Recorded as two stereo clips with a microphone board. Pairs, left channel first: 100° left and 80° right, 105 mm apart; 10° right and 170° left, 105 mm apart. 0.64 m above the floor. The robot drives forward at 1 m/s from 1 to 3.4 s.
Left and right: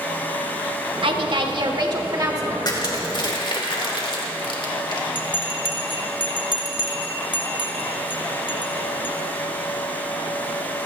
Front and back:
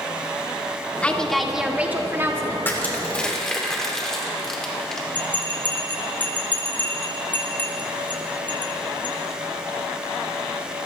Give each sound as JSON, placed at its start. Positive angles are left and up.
{"t": 1.0, "sound": "a woman speaking", "azimuth_deg": -85, "distance_m": 1.7}
{"t": 2.6, "sound": "crushing", "azimuth_deg": 55, "distance_m": 2.5}
{"t": 5.2, "sound": "a bell", "azimuth_deg": 60, "distance_m": 1.9}